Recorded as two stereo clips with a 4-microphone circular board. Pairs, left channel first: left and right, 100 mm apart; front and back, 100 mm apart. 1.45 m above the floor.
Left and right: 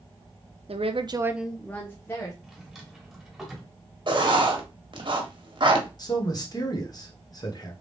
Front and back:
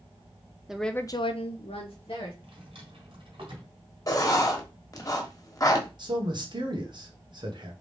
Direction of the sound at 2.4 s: Straight behind.